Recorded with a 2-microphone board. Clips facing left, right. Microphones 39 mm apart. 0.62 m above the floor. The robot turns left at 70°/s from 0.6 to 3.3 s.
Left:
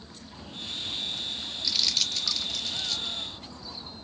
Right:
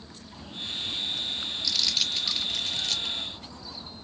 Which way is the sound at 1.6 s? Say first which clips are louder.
Even; 10° left (ahead or behind).